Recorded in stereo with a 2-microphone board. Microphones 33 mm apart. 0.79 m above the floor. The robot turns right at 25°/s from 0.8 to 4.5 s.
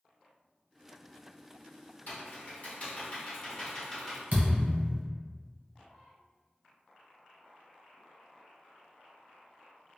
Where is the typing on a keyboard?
115° left, 0.9 m; by 4.2 s 170° left, 0.9 m.